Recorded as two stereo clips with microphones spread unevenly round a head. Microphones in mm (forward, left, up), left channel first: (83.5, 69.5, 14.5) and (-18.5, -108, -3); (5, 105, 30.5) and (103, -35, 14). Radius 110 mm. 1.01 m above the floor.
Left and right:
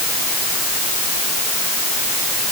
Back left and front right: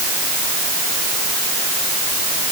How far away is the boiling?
No boiling in this recording.